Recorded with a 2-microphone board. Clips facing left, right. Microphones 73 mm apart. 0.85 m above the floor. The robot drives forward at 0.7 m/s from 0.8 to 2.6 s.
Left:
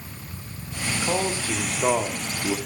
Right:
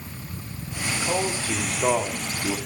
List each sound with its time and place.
0.9 s a man speaking: 10° left (ahead or behind), 2.5 m; by 2.6 s 20° left (ahead or behind), 1.4 m